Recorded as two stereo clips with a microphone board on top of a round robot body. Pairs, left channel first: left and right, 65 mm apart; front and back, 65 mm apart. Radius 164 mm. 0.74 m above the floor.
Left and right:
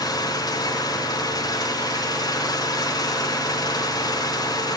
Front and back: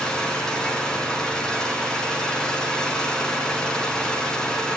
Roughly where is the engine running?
Left.